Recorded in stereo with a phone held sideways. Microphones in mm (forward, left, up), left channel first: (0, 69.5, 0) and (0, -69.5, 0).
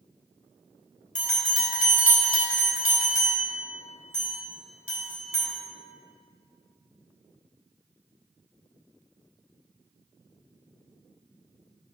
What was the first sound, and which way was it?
A bell, 70° left (ahead or behind).